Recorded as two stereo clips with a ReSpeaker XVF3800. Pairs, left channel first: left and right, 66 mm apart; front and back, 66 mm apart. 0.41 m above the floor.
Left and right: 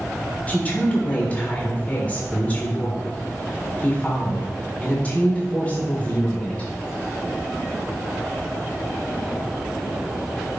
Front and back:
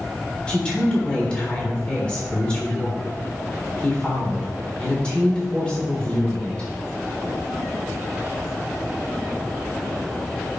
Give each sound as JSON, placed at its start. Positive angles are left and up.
{"t": 0.5, "sound": "a woman speaking", "azimuth_deg": 55, "distance_m": 1.4}